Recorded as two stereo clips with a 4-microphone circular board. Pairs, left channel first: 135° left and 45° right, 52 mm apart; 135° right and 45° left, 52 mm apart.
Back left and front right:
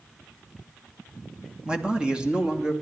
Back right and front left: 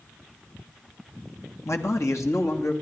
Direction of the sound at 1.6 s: 115° right.